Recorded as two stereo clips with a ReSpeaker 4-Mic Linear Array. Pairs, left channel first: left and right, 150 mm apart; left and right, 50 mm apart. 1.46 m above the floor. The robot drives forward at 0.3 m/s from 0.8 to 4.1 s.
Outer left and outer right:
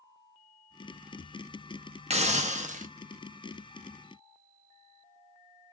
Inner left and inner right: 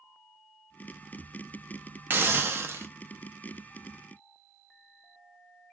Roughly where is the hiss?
Right.